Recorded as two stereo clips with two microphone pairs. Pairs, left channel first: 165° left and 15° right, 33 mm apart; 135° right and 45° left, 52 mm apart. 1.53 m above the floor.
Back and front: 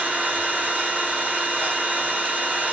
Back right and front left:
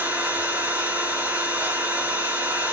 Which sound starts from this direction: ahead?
An engine running, at 0.0 s.